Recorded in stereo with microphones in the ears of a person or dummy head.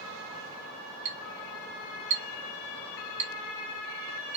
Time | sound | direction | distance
1.1 | a clink | 35° right (ahead or behind) | 0.7 m